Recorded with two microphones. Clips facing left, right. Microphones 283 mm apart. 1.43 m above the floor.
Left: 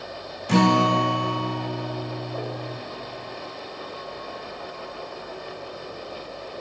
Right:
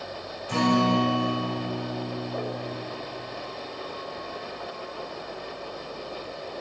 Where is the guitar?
80° left, 1.0 m.